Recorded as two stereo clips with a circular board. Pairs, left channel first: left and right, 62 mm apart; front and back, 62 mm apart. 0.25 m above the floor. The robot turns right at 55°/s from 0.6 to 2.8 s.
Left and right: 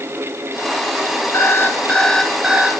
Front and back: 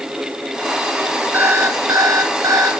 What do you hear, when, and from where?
1.3 s an alarm clock: 125° left, 1.7 m; by 2.7 s 160° right, 1.7 m